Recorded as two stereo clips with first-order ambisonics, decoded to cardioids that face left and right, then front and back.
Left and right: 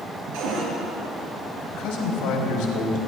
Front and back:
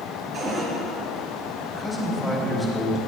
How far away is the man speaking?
About 4 m.